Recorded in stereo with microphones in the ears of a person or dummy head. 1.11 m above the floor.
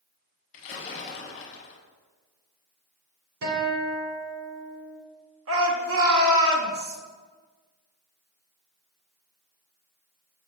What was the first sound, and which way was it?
A splash, 40° left (ahead or behind).